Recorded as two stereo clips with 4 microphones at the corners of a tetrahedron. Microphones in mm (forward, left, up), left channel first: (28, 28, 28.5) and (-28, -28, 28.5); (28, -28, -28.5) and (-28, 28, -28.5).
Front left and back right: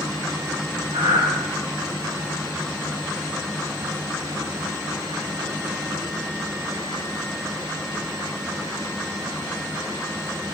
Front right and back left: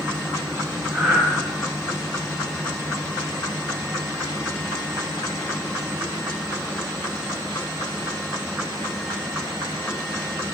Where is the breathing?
135° right, 2.5 m.